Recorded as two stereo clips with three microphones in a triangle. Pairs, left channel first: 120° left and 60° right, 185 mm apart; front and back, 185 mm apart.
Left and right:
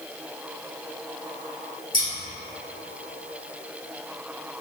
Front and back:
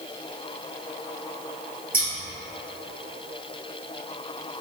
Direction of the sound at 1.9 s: 75° left.